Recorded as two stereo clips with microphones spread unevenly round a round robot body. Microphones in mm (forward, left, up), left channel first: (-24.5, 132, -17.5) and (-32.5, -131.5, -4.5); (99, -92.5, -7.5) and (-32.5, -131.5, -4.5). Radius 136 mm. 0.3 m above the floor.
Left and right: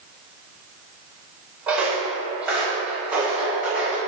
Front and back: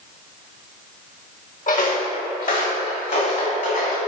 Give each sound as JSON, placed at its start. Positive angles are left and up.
{"t": 1.7, "sound": "footsteps", "azimuth_deg": -5, "distance_m": 2.0}